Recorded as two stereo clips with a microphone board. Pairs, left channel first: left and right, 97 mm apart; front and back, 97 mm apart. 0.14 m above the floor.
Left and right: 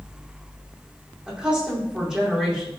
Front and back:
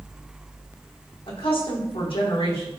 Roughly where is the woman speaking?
Ahead.